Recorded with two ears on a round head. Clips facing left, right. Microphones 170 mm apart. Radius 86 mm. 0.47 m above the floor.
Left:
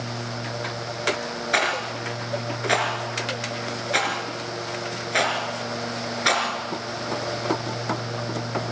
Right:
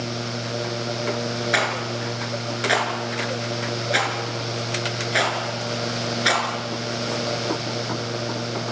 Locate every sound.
1.5 s a rattle: 5° right (ahead or behind), 4.5 m